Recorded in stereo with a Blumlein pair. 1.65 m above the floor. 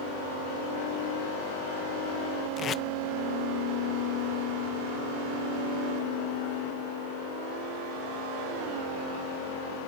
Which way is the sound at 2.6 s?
25° left.